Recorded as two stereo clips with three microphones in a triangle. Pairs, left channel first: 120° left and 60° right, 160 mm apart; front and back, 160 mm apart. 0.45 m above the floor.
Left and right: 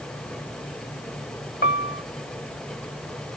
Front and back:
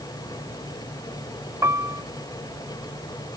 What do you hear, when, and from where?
1.6 s a piano: 110° left